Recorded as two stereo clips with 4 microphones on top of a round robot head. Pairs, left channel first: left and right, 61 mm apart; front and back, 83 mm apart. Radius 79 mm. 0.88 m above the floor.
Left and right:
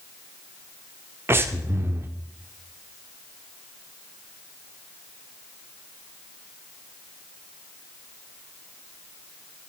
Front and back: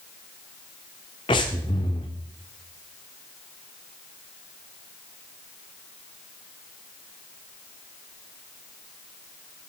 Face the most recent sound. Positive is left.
turn(degrees=-45)